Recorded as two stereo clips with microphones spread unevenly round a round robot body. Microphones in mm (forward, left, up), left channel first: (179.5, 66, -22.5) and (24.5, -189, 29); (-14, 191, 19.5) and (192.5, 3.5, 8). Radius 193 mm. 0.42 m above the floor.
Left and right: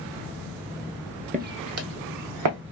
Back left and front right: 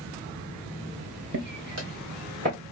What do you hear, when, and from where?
1.3 s footsteps: 65° right, 0.7 m; by 2.6 s 110° right, 1.6 m